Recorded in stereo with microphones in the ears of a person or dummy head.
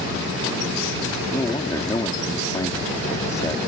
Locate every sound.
1.3 s a man speaking: 15° left (ahead or behind)